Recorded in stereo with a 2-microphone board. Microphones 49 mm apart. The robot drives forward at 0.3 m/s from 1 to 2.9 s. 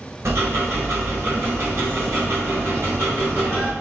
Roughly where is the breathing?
No breathing in this recording.